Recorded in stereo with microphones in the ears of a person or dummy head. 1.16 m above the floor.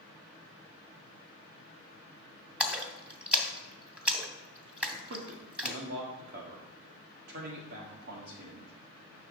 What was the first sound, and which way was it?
A splash, 5° right (ahead or behind).